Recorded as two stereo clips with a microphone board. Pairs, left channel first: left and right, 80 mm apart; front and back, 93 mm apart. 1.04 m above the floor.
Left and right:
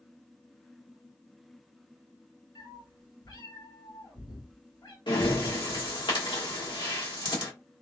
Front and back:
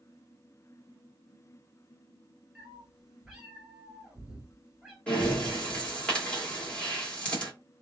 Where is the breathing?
75° left, 1.6 m.